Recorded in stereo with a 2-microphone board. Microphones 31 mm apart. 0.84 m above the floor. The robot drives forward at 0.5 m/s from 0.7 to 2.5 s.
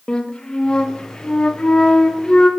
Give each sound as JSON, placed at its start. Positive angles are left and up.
{"t": 0.1, "sound": "a flute", "side_deg": 20, "distance_m": 0.9}